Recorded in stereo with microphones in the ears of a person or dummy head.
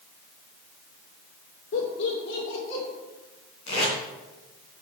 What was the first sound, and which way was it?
Laughter, 65° left (ahead or behind).